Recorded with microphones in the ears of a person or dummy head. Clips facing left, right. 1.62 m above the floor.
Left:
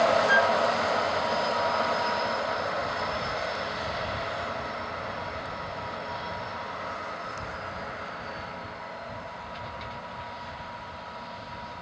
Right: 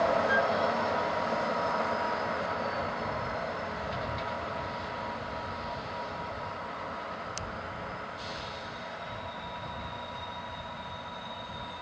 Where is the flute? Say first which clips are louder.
Left 4 dB; 70° left (ahead or behind).